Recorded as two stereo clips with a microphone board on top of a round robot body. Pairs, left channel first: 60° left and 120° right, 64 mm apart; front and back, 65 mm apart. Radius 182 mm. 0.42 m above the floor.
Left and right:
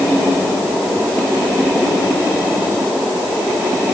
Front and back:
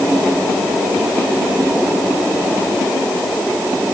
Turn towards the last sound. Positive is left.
No sound to turn to.